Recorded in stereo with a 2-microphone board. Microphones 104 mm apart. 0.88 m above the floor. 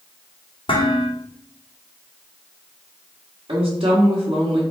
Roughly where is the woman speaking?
Right.